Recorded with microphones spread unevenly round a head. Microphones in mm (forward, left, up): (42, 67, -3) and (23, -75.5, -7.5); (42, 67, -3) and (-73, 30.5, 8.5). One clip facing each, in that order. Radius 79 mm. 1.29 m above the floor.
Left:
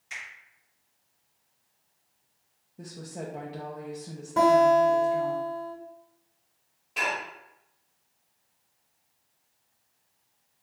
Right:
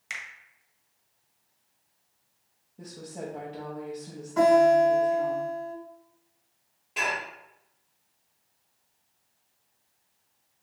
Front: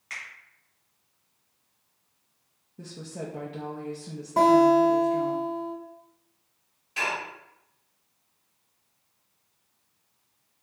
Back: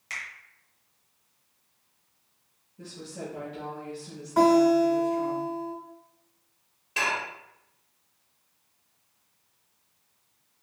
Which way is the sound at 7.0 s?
Straight behind.